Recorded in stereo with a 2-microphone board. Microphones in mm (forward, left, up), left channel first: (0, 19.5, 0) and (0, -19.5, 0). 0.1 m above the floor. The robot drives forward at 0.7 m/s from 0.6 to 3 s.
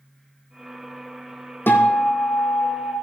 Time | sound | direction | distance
1.7 | a guitar | 70° left (ahead or behind) | 2 m